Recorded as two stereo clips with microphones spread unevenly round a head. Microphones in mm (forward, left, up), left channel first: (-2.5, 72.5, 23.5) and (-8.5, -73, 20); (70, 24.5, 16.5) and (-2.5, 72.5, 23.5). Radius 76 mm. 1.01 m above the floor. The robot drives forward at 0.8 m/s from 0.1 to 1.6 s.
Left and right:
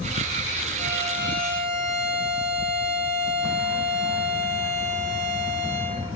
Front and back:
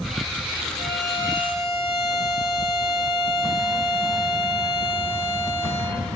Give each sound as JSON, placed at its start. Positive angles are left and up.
{"t": 0.8, "sound": "a violin", "azimuth_deg": -50, "distance_m": 5.0}